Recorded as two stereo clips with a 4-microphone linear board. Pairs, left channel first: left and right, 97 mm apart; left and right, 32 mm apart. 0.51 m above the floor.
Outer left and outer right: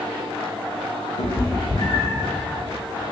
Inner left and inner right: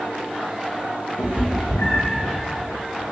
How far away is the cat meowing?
About 0.6 m.